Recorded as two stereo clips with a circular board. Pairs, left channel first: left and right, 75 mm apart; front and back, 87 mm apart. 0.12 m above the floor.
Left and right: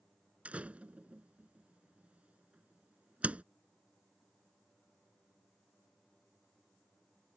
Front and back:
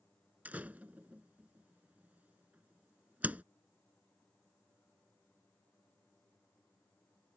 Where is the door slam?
135° right.